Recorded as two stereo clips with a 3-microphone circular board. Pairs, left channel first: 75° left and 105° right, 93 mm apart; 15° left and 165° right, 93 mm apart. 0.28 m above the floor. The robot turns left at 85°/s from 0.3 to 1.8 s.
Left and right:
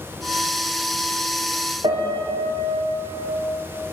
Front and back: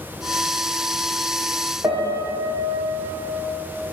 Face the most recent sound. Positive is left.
turn(degrees=-100)